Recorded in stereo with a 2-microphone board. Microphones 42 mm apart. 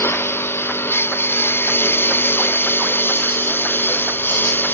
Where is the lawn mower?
75° left (ahead or behind); by 4.7 s 60° left (ahead or behind).